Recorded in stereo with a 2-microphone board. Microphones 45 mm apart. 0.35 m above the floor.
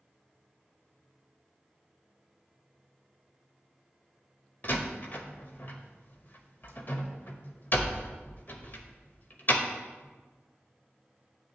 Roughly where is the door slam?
Left.